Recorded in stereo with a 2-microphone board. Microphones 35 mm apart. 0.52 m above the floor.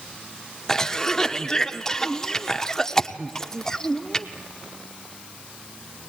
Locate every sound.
0.7 s a cough: 15° left (ahead or behind), 0.8 m